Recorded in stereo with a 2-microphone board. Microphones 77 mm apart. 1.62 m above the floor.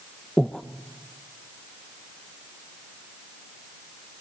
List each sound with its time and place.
0.4 s breathing: 5° left (ahead or behind), 0.8 m